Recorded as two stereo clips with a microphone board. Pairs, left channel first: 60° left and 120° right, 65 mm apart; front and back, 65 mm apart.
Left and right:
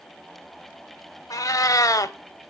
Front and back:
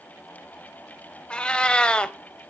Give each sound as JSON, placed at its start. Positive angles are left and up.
{"t": 1.3, "sound": "a cat meowing", "azimuth_deg": 70, "distance_m": 0.5}